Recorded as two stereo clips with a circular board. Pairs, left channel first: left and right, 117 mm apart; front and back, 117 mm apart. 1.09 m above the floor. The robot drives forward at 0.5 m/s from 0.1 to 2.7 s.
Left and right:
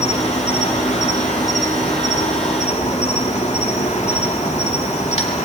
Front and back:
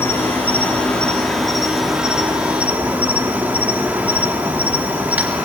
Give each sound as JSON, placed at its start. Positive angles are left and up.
{"t": 0.0, "sound": "an insect", "azimuth_deg": 70, "distance_m": 2.5}